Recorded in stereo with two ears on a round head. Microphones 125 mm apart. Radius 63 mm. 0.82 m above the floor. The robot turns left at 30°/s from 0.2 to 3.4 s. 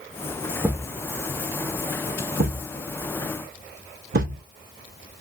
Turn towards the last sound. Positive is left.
turn(degrees=-70)  # may be behind; listen again after turning